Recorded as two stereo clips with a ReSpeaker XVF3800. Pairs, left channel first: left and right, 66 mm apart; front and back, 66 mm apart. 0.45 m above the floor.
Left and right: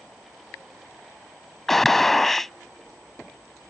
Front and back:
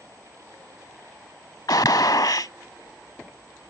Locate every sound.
1.7 s a gunshot: 5° left